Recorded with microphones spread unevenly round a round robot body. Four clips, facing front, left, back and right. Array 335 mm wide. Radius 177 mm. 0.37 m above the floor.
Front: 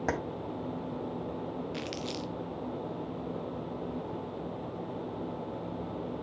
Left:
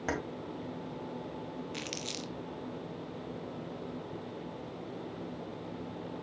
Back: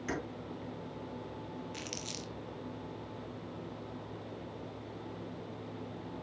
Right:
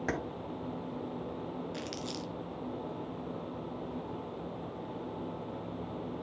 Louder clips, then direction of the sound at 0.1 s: Left 1 dB, front 5 dB; 10° left.